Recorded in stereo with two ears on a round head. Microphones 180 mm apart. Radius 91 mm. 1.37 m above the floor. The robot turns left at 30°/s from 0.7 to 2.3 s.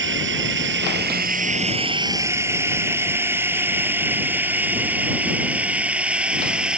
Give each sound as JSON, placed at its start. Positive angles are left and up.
{"t": 0.0, "sound": "a drone", "side_deg": -65}